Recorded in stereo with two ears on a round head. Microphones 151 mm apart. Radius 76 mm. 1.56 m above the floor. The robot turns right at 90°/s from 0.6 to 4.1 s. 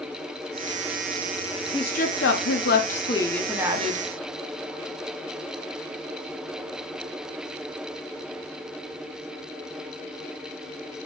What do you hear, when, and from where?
1.7 s a woman speaking: 25° left, 1.2 m; by 4.0 s 125° right, 1.2 m